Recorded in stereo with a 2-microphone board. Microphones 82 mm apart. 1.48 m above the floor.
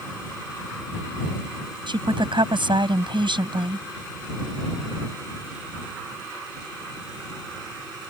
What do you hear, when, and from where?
1.9 s a woman speaking: 80° right